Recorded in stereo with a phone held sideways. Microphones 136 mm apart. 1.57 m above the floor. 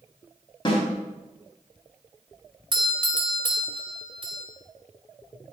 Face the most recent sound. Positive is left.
turn(degrees=-35)  # may be behind; listen again after turning